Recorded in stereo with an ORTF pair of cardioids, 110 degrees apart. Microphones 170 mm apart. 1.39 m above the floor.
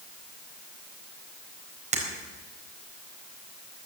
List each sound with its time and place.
1.9 s breaking glass: 45° right, 4 m